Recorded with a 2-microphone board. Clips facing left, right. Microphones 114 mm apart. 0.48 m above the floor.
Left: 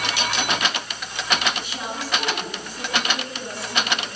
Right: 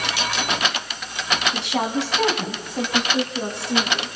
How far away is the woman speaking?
About 4 m.